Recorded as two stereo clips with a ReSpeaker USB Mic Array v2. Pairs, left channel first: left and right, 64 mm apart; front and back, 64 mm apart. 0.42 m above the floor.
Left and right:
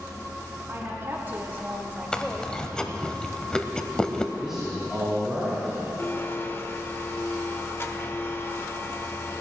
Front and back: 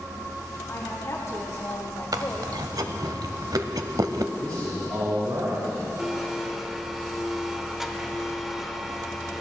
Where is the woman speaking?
45° right, 3 m; by 2.6 s 15° left, 1.2 m.